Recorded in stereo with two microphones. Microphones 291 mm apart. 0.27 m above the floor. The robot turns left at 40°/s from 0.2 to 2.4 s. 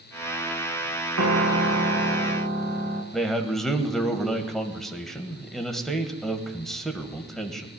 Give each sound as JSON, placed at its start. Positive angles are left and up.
{"t": 1.2, "sound": "a piano", "azimuth_deg": -85, "distance_m": 1.4}
{"t": 3.1, "sound": "a man speaking", "side_deg": 0, "distance_m": 1.2}